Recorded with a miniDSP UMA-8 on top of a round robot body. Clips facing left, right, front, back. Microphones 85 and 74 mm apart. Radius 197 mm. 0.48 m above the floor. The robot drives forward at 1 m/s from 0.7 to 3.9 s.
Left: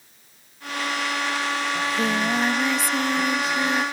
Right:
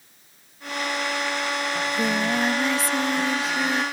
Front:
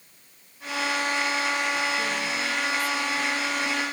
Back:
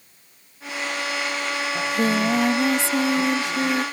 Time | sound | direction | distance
1.8 | singing | straight behind | ?